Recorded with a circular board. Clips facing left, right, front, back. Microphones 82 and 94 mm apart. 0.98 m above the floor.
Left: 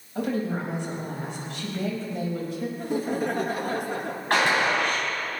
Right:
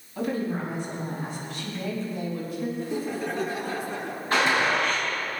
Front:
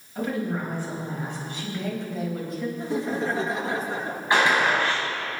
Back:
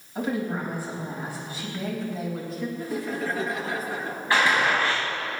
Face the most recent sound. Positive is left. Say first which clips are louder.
# left 1 dB, front 1 dB
turn(degrees=70)